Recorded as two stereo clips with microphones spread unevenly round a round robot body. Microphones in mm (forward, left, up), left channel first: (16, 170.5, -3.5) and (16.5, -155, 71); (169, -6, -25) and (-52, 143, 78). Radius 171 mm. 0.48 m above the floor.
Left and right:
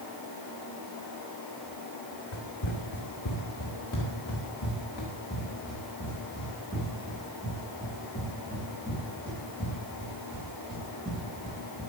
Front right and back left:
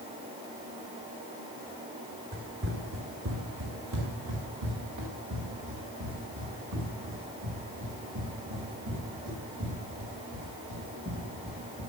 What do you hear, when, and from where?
2.3 s running footsteps: 100° left, 3 m; by 11.8 s straight behind, 12 m